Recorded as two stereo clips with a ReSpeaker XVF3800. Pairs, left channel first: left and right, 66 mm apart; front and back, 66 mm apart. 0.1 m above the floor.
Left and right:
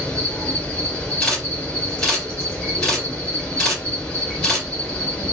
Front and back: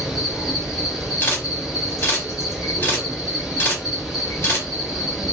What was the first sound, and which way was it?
An insect, 110° left.